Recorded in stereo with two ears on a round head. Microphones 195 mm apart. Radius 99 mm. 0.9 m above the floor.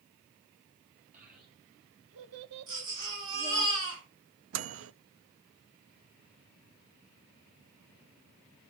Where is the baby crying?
70° right (ahead or behind), 7.5 m.